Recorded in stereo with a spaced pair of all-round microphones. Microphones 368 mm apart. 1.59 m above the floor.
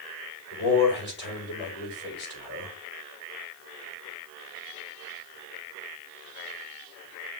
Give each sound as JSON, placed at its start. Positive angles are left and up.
{"t": 0.5, "sound": "a man speaking", "side_deg": 30, "distance_m": 5.0}